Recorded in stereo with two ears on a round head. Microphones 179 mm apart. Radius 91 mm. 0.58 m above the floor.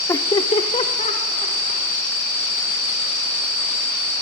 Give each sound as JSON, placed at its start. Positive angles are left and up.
{"t": 0.1, "sound": "laughter", "side_deg": 15, "distance_m": 0.9}